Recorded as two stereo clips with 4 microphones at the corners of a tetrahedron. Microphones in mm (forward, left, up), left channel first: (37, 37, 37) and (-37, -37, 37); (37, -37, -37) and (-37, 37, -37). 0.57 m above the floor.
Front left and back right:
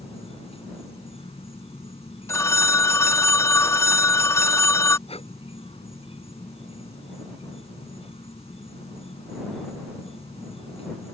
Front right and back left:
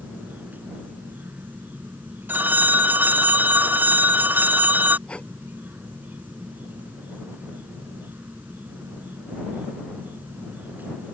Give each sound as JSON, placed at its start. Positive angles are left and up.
{"t": 0.0, "sound": "an insect", "azimuth_deg": 60}
{"t": 2.3, "sound": "a phone ringing", "azimuth_deg": 80}
{"t": 5.1, "sound": "breathing", "azimuth_deg": 35}